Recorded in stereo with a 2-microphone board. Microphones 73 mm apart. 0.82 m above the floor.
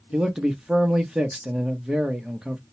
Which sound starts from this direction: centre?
A man speaking, at 0.1 s.